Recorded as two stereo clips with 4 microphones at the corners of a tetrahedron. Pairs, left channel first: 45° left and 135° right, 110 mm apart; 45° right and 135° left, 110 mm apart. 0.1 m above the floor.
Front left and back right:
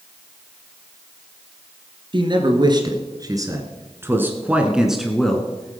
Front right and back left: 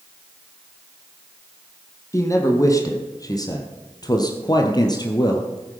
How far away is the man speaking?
About 2.5 m.